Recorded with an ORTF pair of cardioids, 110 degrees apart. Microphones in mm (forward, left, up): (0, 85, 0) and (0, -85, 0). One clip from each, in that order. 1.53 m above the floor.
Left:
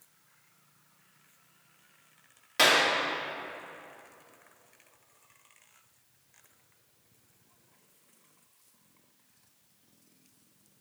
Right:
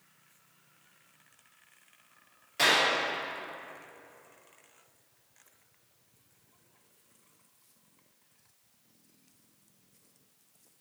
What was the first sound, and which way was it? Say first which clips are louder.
A clap: left 2 dB; 45° left.